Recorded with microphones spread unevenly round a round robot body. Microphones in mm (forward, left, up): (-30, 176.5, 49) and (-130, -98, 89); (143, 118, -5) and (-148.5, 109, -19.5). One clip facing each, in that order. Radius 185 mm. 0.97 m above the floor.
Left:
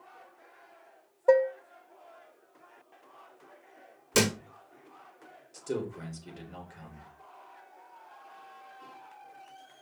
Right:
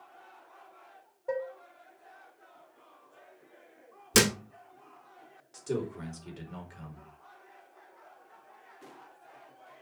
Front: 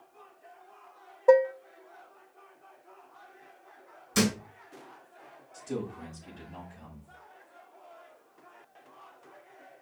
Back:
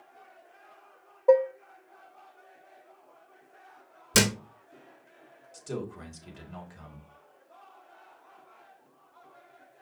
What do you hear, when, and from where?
1.3 s dishes clattering: 70° left, 0.6 m
4.1 s a thud: 170° right, 1.3 m
5.5 s a man speaking: 165° left, 4.5 m